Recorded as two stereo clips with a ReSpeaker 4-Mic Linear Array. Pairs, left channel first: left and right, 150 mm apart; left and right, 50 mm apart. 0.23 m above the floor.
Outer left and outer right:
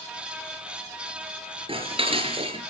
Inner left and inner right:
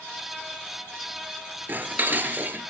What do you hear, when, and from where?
1.7 s dishes clattering: 35° right (ahead or behind), 2.5 m